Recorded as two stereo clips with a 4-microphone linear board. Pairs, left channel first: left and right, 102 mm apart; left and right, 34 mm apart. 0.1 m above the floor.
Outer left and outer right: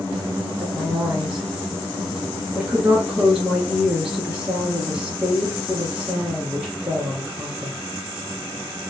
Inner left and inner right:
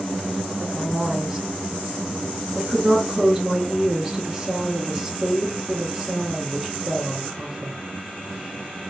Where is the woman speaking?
5° right (ahead or behind), 1.4 m.